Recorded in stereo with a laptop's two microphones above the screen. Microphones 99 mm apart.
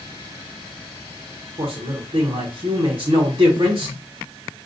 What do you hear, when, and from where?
1.6 s a man speaking: 50° right (ahead or behind), 0.8 m